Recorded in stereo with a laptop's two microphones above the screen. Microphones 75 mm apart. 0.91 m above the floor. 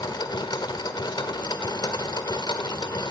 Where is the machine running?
80° left, 1.6 m.